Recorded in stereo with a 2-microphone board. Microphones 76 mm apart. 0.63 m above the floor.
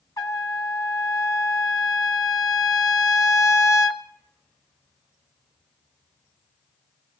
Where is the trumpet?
55° left (ahead or behind), 1.0 m.